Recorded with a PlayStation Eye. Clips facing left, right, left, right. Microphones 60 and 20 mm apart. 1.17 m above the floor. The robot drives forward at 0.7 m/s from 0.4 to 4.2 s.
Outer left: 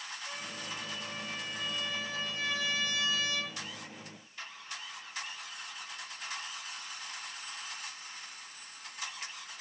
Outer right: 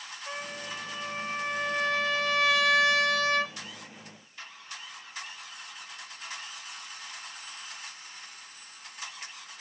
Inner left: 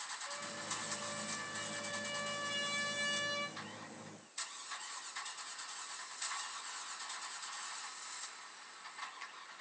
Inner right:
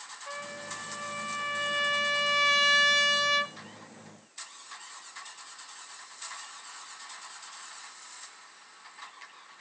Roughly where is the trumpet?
Right.